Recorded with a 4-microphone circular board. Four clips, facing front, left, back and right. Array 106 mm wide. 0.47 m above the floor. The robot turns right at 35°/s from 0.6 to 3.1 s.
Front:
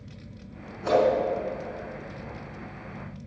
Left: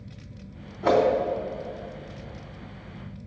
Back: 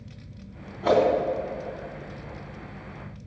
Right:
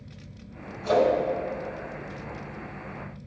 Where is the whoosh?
115° left, 3.5 m; by 1.0 s 120° left, 3.5 m.